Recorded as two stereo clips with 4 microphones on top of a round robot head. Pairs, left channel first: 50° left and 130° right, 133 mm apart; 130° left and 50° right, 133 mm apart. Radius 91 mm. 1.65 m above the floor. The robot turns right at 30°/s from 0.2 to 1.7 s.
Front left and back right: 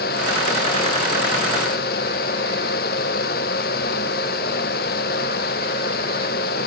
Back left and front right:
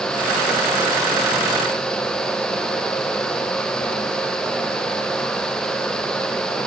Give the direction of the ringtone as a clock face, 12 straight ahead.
No ringtone in this recording.